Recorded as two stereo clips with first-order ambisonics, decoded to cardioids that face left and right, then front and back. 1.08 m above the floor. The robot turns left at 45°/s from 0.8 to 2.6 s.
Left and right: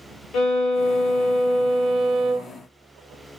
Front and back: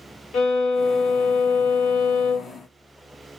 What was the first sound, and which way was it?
A violin, 45° left.